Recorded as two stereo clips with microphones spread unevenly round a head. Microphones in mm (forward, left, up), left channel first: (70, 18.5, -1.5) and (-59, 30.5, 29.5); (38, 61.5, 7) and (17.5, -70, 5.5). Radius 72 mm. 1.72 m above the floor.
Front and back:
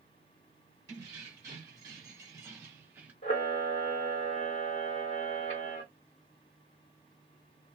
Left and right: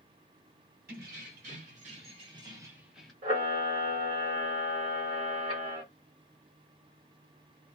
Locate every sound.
0.9 s keys jangling: 125° right, 1.5 m; by 3.1 s 160° left, 0.7 m
3.2 s a camera shutter: 50° right, 1.4 m